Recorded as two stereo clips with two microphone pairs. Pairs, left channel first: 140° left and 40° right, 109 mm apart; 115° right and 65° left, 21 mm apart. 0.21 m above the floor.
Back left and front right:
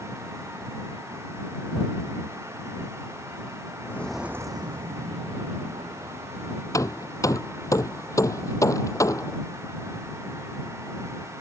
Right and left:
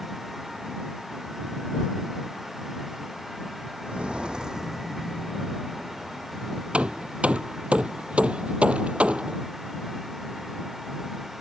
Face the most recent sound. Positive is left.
turn(degrees=80)